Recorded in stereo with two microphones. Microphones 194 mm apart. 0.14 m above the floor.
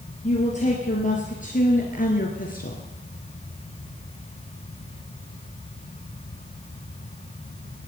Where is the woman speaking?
35° left (ahead or behind), 3 m; by 2.8 s 50° left (ahead or behind), 2 m.